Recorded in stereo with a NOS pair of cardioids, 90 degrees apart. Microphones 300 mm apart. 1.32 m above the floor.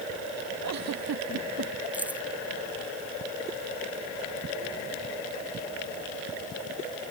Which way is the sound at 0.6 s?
60° right.